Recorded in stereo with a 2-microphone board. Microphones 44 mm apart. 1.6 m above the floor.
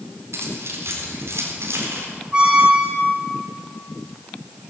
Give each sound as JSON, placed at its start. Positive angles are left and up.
{"t": 0.3, "sound": "keys jangling", "side_deg": -85, "distance_m": 4.0}
{"t": 2.3, "sound": "a squeak", "side_deg": -20, "distance_m": 3.5}